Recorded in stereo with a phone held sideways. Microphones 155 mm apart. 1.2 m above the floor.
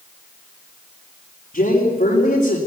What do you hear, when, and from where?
1.5 s a man speaking: 65° left (ahead or behind), 3.5 m